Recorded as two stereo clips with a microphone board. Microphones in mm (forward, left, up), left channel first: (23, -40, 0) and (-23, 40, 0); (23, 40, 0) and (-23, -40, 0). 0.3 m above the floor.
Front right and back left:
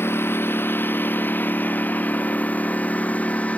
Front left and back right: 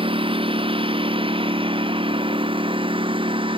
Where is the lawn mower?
125° right; by 3.6 s 135° right.